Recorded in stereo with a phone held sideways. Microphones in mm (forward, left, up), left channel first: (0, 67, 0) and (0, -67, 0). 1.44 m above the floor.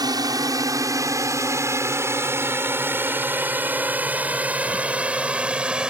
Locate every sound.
0.0 s a drone: 30° right (ahead or behind); by 5.9 s 5° right (ahead or behind)